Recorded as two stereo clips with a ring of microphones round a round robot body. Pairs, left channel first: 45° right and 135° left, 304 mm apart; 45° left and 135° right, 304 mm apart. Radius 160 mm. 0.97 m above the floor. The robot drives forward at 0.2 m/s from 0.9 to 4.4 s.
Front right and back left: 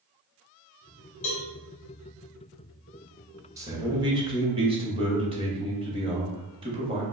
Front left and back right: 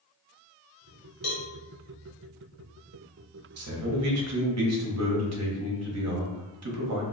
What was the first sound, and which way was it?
A cowbell, 15° right.